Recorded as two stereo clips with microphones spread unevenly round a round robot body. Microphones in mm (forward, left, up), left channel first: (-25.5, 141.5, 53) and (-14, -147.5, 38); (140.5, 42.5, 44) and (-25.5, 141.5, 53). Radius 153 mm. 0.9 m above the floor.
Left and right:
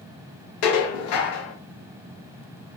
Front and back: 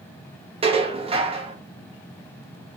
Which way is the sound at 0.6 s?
85° left.